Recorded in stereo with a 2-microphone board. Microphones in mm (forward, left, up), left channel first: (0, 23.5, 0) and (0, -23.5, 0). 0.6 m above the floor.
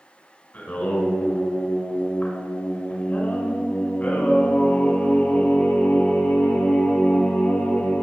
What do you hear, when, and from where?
0.5 s singing: 40° left (ahead or behind), 2.5 m